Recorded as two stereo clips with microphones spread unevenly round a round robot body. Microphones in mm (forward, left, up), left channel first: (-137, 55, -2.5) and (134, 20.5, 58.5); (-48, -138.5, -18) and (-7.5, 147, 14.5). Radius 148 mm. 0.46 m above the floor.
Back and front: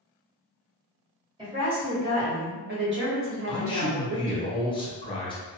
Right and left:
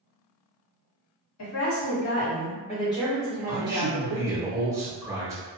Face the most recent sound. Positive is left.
turn(degrees=165)